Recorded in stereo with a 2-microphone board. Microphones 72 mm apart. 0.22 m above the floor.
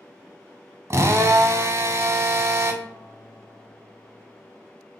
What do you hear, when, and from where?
0.9 s a drill: 45° right (ahead or behind), 0.6 m
2.8 s a guitar: 55° left (ahead or behind), 2.5 m